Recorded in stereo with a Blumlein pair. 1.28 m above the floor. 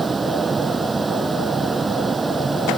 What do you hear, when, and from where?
0.0 s a fan: 15° right